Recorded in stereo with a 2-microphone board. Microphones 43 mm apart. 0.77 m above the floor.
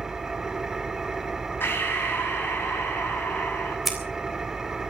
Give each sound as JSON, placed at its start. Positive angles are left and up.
{"t": 0.0, "sound": "an engine running", "side_deg": -10, "distance_m": 2.0}
{"t": 1.6, "sound": "breathing", "side_deg": 60, "distance_m": 6.0}
{"t": 3.9, "sound": "scissors", "side_deg": 0, "distance_m": 3.5}